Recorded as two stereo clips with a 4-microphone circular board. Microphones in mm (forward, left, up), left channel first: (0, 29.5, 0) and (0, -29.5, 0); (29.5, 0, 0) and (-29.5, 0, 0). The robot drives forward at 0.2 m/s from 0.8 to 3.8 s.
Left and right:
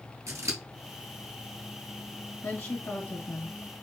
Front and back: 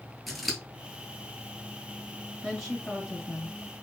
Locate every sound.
0.3 s scissors: 90° right, 1.1 m
2.4 s a woman speaking: 100° left, 1.7 m; by 3.6 s 110° left, 1.7 m